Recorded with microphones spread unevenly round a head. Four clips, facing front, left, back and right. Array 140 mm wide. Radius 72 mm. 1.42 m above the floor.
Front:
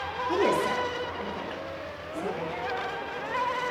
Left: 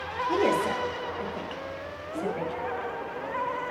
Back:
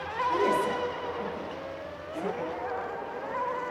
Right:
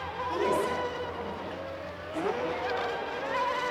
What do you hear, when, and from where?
0.3 s a woman speaking: 50° left, 2.5 m; by 2.5 s 80° left, 5.5 m